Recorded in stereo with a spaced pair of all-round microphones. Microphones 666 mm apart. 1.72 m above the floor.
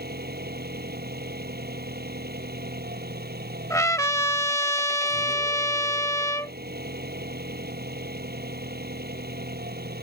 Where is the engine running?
15° right (ahead or behind).